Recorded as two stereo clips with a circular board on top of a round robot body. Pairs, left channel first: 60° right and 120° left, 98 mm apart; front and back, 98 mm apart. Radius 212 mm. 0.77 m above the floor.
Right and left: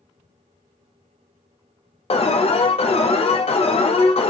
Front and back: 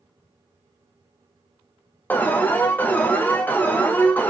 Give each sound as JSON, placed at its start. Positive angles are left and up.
{"t": 2.1, "sound": "an alarm", "azimuth_deg": -75, "distance_m": 0.6}